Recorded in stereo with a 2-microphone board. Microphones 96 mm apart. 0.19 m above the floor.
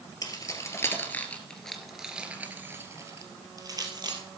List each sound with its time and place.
0.2 s keys jangling: 40° left (ahead or behind), 2.5 m; by 4.2 s 45° right (ahead or behind), 3.5 m